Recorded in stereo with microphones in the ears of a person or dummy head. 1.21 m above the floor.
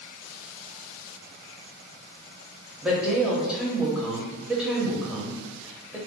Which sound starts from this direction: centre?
A woman speaking, at 2.8 s.